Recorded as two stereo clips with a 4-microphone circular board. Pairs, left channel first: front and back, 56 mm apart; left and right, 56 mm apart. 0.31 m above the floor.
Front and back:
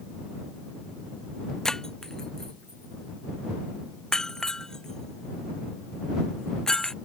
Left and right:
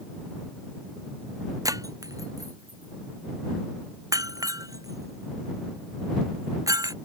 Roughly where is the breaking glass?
Right.